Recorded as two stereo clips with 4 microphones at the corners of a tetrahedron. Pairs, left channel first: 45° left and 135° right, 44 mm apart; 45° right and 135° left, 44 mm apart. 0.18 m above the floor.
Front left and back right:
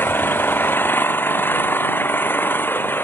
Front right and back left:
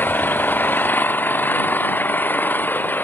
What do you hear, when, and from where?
0.0 s an engine running: 5° left